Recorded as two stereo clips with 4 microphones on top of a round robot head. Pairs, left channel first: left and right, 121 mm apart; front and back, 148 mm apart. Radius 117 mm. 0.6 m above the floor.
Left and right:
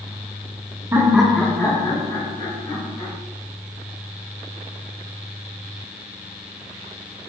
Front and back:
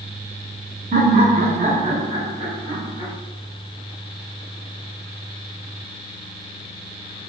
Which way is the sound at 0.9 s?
160° right.